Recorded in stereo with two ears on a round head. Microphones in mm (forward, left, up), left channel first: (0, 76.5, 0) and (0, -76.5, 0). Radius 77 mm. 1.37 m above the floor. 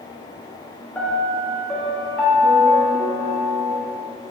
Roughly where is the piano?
Centre.